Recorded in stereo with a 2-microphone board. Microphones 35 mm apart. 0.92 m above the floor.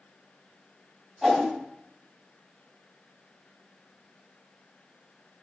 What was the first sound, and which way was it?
A whoosh, 10° right (ahead or behind).